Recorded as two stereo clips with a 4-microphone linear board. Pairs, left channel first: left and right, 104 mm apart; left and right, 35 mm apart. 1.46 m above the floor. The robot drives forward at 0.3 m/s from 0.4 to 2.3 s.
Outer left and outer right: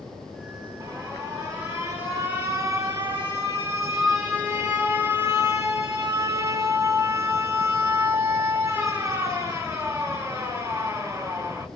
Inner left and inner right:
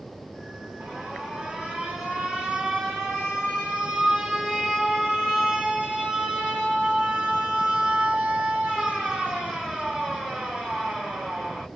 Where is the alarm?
35° right (ahead or behind), 1.1 m; by 11.7 s 25° right (ahead or behind), 1.5 m.